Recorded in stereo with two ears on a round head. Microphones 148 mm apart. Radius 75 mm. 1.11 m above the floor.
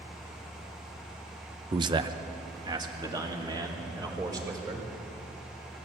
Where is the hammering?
I don't hear hammering.